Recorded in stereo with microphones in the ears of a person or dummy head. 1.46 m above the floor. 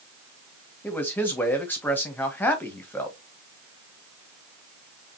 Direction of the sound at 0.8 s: 5° left (ahead or behind).